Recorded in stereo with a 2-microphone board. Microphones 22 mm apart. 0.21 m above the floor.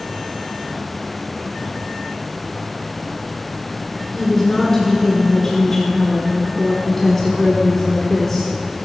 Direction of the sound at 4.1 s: 5° left (ahead or behind).